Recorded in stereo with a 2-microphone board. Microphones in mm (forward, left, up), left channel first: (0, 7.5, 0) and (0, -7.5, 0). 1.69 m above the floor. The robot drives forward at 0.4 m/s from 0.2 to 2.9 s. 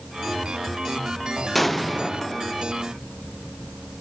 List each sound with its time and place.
1.6 s an explosion: 10° left (ahead or behind), 0.6 m; by 2.7 s 5° left (ahead or behind), 1.0 m